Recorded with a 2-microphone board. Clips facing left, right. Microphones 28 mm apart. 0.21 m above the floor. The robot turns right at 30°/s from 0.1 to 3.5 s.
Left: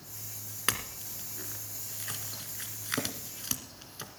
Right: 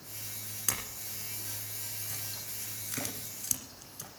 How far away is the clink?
About 1.7 m.